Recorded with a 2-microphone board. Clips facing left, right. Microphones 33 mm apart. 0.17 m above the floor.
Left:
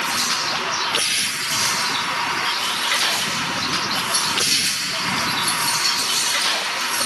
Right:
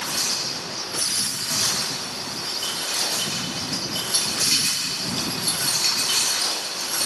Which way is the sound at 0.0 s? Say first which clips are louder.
Left 5 dB; 75° left (ahead or behind).